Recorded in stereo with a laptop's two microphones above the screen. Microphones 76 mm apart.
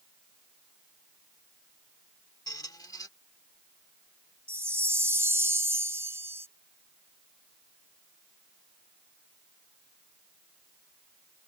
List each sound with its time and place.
2.5 s a squeak: 60° left (ahead or behind)
4.5 s a chime: 35° right (ahead or behind)